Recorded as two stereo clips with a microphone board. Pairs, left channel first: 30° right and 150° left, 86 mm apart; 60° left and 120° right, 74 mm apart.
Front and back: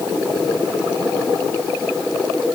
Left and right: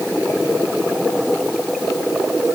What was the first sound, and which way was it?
Only background noise.